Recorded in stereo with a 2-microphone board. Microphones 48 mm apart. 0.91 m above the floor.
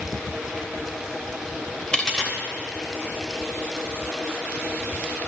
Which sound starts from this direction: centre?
A dropped coin, at 1.9 s.